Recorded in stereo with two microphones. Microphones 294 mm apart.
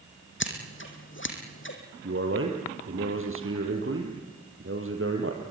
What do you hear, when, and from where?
0.4 s scissors: 45° left (ahead or behind), 3 m
2.0 s a man speaking: 50° right (ahead or behind), 3.5 m